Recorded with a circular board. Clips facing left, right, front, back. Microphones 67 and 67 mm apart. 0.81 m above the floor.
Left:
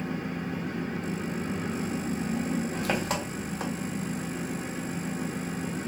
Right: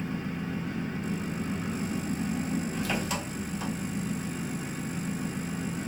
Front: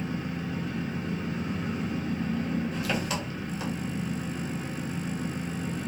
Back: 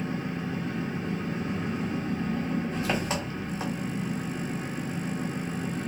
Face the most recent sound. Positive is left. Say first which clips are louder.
# left 1 dB, back 1 dB
turn(degrees=125)